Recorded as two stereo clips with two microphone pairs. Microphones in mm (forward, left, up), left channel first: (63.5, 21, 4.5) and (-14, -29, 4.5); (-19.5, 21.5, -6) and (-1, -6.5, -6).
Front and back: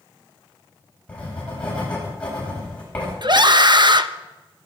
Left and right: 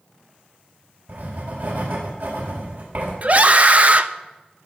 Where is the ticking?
I don't hear ticking.